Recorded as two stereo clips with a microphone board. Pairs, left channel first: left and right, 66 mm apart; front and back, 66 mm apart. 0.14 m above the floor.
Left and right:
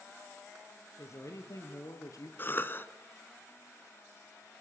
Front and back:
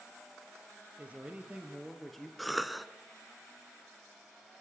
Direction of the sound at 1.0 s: 120° left.